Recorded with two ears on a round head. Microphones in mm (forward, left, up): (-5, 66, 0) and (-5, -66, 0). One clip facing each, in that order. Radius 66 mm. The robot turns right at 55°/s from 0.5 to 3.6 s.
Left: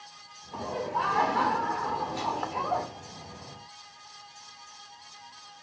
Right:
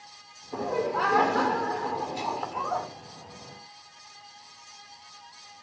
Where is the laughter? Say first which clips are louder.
Right 4 dB; 110° right, 2.5 m; by 2.9 s 20° left, 2.5 m.